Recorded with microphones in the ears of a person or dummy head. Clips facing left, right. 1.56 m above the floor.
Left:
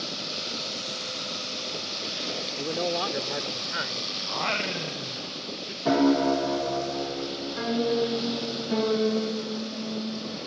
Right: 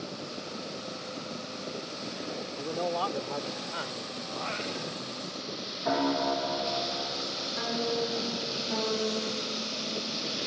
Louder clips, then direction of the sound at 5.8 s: Left 7 dB; 40° left (ahead or behind).